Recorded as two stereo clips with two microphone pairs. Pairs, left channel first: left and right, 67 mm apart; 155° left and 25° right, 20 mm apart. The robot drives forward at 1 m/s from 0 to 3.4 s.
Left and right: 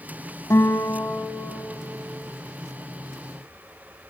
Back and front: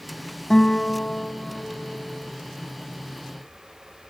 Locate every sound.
0.5 s a guitar: 105° left, 1.4 m; by 1.8 s 145° left, 2 m